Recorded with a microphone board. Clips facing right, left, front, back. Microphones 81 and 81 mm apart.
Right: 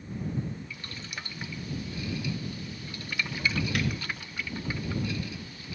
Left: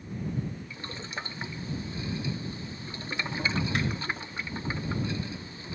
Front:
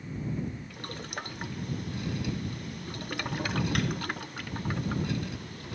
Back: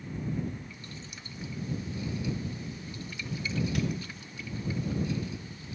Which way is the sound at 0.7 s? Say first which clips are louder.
Left 3 dB, front 7 dB; 30° left.